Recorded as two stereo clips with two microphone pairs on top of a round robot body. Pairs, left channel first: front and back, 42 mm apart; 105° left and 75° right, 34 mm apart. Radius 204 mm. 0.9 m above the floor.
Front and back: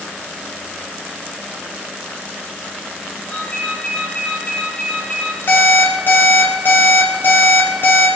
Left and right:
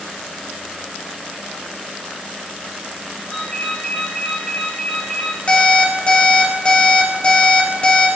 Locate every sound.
3.3 s a ringtone: 50° left, 6.5 m
5.5 s an alarm clock: 40° left, 2.5 m